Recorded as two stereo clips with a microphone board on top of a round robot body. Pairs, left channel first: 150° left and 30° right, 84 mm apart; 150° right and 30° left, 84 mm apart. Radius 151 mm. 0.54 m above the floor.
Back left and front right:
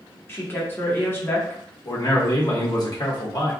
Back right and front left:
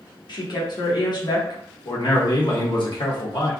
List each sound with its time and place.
0.3 s a woman speaking: 150° right, 1.5 m
1.9 s a man speaking: 175° right, 1.6 m